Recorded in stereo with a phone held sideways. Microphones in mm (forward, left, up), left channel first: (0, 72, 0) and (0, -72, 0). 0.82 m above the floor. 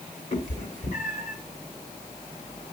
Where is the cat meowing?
60° left (ahead or behind), 1.9 m.